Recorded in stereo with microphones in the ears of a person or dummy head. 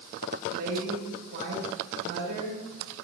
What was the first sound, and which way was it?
A woman speaking, 60° right (ahead or behind).